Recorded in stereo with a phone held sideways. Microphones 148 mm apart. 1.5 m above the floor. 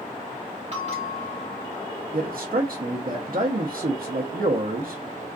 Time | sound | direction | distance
0.7 | a bell | 45° right (ahead or behind) | 1.4 m
2.1 | a man speaking | 70° right (ahead or behind) | 0.6 m